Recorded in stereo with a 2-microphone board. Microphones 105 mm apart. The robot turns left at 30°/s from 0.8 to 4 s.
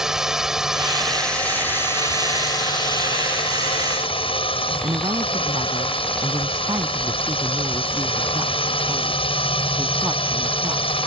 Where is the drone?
175° right; by 11.1 s 90° left.